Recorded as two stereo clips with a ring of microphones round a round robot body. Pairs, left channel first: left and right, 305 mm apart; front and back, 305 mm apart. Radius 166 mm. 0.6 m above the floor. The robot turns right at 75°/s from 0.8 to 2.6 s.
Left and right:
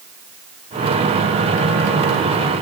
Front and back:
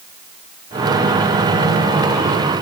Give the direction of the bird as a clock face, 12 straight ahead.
No bird in this recording.